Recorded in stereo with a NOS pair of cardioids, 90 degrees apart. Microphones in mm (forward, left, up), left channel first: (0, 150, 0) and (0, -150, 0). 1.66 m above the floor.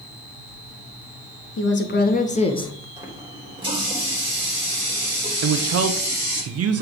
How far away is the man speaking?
About 1.0 m.